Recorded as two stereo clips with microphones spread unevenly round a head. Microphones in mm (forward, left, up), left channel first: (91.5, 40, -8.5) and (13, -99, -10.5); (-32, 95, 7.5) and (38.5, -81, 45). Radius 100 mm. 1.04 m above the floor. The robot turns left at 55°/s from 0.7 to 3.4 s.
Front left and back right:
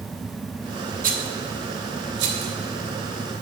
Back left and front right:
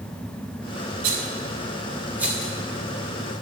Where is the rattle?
85° right, 1.4 m; by 2.5 s 165° right, 1.4 m.